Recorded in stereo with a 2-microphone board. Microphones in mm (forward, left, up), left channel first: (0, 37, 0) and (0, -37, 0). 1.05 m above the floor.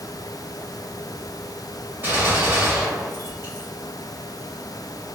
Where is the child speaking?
No child speaking in this recording.